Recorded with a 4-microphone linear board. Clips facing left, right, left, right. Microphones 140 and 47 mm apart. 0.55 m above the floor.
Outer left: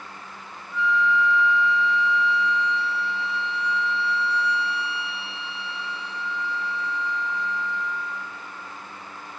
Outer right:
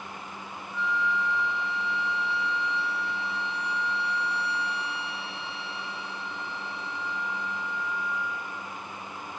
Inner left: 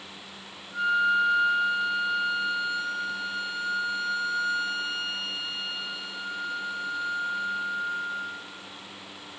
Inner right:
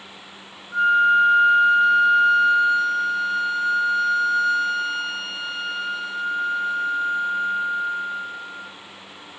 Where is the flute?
60° right (ahead or behind), 1.2 m.